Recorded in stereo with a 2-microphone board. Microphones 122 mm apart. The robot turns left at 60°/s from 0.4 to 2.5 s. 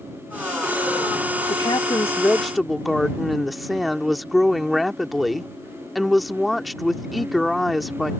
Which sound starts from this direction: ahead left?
A woman speaking, at 1.5 s.